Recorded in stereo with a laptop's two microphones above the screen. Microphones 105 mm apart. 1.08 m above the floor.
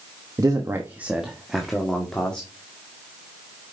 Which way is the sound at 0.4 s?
35° right (ahead or behind).